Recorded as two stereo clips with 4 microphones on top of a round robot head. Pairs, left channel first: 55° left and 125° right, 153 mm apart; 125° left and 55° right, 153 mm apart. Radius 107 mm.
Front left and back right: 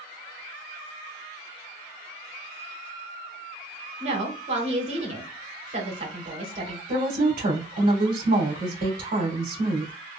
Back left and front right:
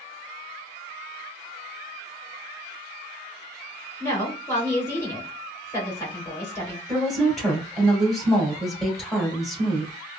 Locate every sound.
4.0 s a woman speaking: 165° right, 2.5 m
6.9 s a woman speaking: 145° right, 2 m